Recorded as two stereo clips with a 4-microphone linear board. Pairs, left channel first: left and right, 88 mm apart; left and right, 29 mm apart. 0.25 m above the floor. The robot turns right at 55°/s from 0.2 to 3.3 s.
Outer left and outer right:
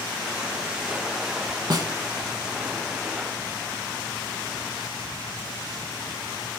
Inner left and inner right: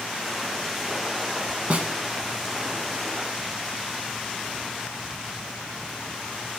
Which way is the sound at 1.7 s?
55° right (ahead or behind).